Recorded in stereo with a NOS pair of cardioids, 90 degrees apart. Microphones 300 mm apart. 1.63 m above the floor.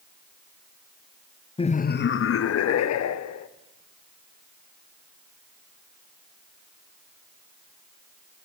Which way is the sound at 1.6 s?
15° left.